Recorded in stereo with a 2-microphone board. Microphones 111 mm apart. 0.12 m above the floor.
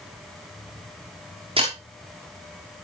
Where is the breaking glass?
50° right (ahead or behind), 4.5 m.